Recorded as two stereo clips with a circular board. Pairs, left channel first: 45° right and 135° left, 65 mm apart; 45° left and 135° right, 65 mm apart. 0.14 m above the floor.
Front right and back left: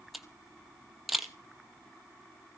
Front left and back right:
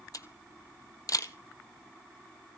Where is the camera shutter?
50° left, 1.2 m.